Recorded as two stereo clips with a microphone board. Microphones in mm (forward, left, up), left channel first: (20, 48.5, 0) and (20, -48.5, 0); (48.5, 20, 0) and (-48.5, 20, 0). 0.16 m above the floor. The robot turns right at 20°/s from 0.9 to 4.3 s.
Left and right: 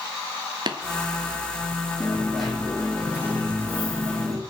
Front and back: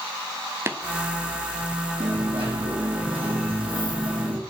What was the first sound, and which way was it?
Tapping, 120° right.